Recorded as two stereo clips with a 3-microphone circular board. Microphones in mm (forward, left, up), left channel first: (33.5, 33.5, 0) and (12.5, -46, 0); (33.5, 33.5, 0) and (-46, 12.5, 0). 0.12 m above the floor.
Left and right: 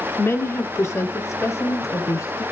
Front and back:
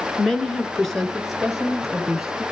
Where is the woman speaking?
95° left, 1.6 m; by 2.4 s 110° left, 2.5 m.